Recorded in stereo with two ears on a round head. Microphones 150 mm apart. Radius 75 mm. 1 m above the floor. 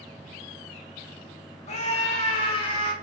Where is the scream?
45° left (ahead or behind), 2.5 m; by 2.9 s 35° left (ahead or behind), 3 m.